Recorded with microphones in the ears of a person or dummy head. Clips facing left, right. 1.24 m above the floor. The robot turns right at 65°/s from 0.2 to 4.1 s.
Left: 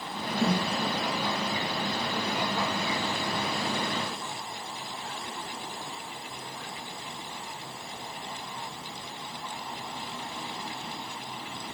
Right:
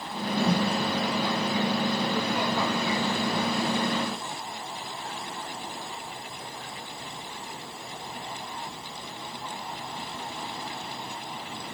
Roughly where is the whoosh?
Centre.